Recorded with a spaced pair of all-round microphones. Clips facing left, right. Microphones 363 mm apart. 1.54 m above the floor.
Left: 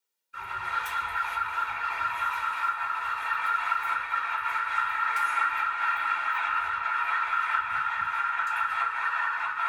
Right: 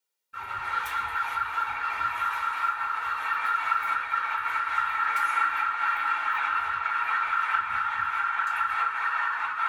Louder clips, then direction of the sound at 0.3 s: Right 1 dB; 85° right.